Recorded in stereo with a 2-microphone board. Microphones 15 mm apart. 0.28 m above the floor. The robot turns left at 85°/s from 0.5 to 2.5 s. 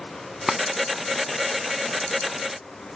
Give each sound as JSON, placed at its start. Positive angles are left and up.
{"t": 0.5, "sound": "tapping", "side_deg": -20}